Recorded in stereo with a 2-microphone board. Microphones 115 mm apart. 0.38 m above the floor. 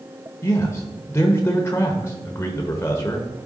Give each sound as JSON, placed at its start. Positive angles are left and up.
{"t": 0.4, "sound": "a man speaking", "side_deg": 25, "distance_m": 1.0}